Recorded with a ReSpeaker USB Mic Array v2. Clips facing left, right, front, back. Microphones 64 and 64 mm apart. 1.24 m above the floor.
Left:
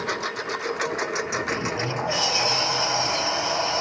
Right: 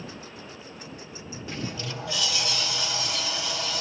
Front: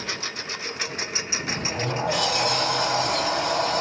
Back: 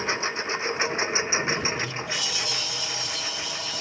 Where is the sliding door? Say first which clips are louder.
Left 8 dB, even; 35° left.